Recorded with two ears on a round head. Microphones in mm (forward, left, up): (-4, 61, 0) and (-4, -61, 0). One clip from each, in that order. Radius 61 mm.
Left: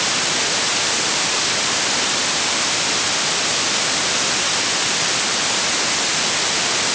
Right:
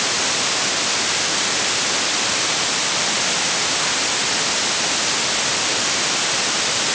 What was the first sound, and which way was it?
Only background noise.